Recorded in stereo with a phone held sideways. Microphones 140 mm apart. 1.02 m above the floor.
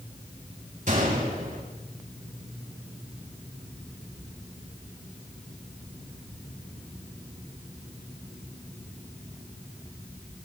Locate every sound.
0.9 s a gunshot: 60° right (ahead or behind), 4.5 m